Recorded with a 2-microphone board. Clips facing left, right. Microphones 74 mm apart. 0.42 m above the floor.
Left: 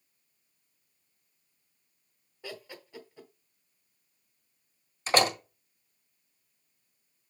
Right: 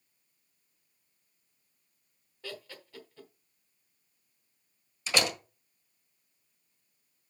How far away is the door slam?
About 1.5 m.